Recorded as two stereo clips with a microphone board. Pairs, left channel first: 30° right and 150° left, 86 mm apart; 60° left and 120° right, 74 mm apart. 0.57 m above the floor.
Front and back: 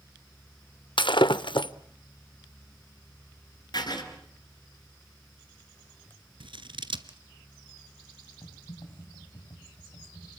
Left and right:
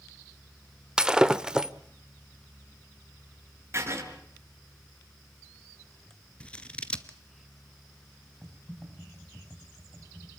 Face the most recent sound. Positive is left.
turn(degrees=-30)